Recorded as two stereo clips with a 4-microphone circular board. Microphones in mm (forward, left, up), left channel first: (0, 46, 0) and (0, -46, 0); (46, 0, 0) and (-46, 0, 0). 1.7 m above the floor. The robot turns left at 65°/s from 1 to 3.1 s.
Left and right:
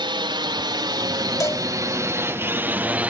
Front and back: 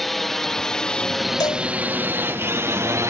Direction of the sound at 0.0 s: 90° right.